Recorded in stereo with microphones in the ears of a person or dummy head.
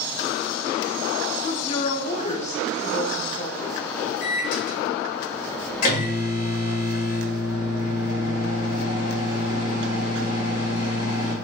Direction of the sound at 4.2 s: 50° left (ahead or behind).